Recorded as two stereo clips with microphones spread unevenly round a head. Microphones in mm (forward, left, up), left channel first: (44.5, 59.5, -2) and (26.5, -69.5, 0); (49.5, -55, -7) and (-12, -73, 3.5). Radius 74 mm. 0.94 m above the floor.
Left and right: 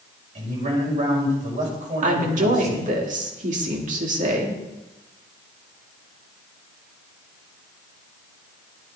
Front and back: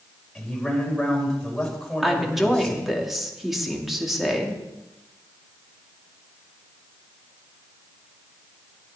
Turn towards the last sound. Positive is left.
turn(degrees=-75)